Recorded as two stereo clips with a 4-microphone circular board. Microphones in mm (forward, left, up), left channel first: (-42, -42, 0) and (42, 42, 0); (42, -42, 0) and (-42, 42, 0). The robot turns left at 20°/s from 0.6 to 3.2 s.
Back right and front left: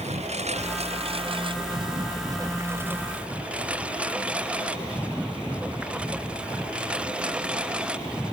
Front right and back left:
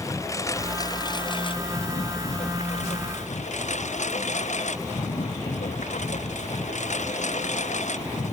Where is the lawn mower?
20° left; by 8.3 s 35° right.